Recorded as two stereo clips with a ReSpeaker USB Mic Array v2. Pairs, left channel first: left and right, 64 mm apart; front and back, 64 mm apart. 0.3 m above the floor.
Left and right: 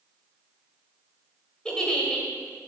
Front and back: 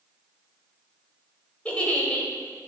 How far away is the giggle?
About 1.3 m.